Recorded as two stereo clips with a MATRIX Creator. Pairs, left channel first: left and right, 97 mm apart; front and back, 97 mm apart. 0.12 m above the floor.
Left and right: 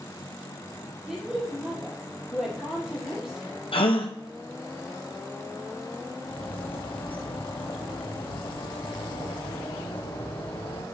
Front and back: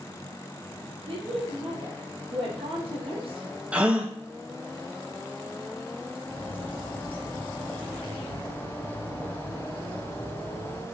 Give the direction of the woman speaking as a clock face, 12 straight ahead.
6 o'clock.